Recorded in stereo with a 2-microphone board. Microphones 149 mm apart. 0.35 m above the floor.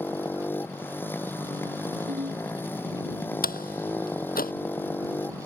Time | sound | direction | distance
0.0 | a motorcycle | 15° left (ahead or behind) | ?
2.1 | a ringtone | 55° right (ahead or behind) | ?
3.4 | a door slam | 75° left (ahead or behind) | ?